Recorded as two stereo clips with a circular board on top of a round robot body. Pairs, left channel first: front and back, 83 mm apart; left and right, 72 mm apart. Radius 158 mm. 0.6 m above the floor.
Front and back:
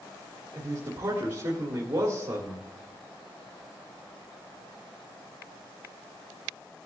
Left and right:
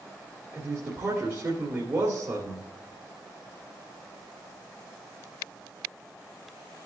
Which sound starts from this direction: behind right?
A man speaking, at 0.5 s.